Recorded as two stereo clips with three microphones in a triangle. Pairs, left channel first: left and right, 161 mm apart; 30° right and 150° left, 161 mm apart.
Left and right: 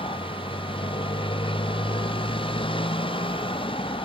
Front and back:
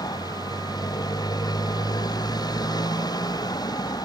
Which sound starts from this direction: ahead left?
A motorcycle, at 0.0 s.